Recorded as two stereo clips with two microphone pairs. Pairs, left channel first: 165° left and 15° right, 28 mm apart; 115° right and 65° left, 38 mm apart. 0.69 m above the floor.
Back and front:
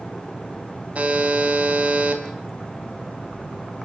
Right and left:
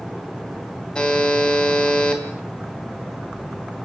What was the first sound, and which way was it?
A buzzer, 55° right.